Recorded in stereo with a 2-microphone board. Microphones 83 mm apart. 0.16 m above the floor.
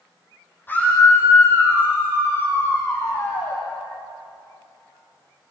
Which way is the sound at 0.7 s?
25° left (ahead or behind).